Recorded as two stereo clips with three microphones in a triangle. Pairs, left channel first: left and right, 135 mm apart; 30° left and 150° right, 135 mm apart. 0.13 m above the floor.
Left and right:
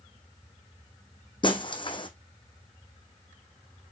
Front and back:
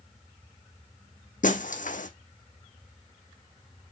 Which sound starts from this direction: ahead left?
Breaking glass, at 1.4 s.